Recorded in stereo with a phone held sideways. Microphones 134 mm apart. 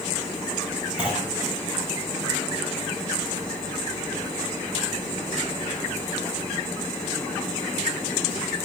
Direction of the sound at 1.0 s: 10° right (ahead or behind).